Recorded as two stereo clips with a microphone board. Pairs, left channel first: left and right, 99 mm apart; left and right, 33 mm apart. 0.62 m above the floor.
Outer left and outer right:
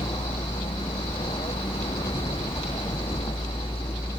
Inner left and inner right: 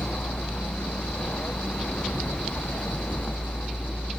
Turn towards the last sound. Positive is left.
turn(degrees=60)  # may be behind; listen again after turning